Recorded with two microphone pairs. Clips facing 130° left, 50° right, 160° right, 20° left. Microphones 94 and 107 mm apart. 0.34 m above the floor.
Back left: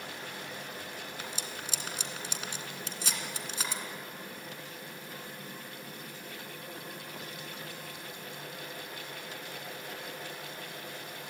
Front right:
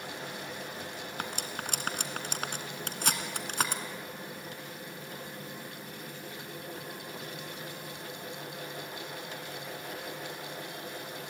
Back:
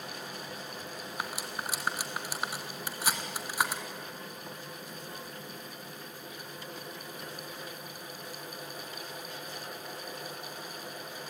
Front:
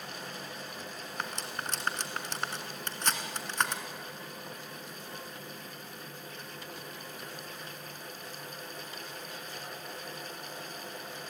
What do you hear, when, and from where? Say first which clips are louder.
1.2 s cutlery clinking: front right 4 dB, even; 80° right, 2.0 m